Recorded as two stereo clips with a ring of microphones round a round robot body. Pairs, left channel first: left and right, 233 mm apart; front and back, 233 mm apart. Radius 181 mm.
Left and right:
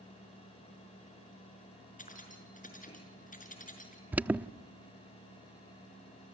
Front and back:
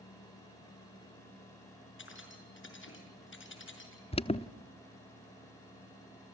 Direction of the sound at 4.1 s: 15° right.